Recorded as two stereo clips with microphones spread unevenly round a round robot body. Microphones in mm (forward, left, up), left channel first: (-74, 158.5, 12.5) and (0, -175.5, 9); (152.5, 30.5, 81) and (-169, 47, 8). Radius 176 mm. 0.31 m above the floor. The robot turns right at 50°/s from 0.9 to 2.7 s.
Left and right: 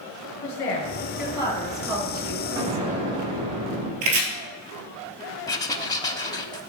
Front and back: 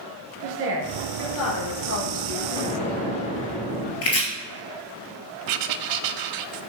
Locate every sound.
0.4 s a woman speaking: 150° left, 3 m; by 3.3 s 120° right, 3 m
2.6 s an explosion: 85° right, 3 m; by 3.9 s 80° right, 3 m
4.0 s chopping: 55° right, 1.8 m
5.5 s writing: straight behind, 0.6 m